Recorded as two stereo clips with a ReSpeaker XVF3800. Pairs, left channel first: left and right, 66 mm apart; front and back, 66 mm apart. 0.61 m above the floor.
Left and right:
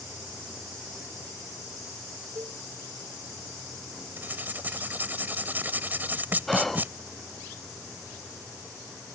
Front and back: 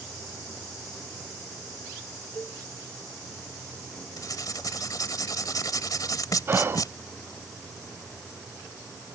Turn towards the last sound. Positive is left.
turn(degrees=175)